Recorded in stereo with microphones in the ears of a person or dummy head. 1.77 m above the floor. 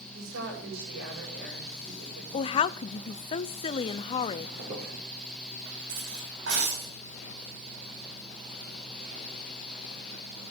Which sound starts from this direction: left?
A woman speaking, at 2.3 s.